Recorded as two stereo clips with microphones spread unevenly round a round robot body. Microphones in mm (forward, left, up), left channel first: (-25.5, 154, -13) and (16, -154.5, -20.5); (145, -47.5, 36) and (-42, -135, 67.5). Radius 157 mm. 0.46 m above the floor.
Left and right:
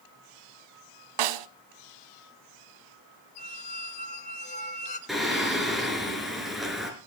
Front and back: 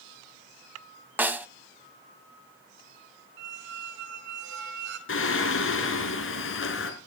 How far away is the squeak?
About 1.2 m.